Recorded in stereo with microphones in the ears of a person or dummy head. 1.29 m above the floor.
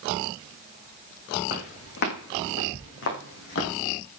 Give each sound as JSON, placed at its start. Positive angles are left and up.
{"t": 1.5, "sound": "footsteps", "side_deg": 55, "distance_m": 5.0}